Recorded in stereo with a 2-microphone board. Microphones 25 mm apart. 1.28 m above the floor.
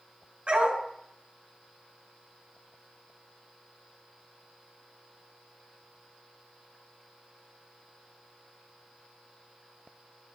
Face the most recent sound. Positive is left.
turn(degrees=-50)  # may be behind; listen again after turning